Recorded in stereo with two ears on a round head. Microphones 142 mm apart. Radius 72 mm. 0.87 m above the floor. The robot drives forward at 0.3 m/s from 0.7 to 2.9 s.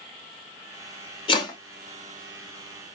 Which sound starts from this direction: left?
Chopping, at 1.3 s.